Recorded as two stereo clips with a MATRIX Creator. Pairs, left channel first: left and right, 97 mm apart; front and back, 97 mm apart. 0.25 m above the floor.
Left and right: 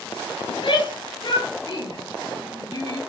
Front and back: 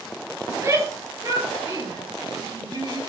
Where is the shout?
120° left, 5.5 m; by 3.0 s 135° left, 7.5 m.